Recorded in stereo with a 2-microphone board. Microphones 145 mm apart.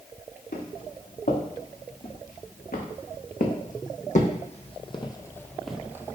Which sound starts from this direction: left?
Footsteps, at 0.5 s.